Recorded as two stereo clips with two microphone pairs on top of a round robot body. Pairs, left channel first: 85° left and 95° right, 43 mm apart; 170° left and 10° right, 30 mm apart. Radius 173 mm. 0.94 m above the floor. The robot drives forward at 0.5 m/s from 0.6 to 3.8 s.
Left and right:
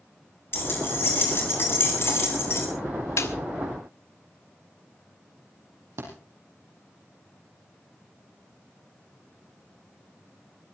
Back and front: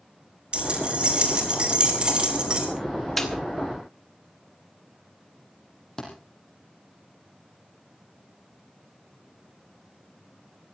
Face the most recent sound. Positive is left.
turn(degrees=-115)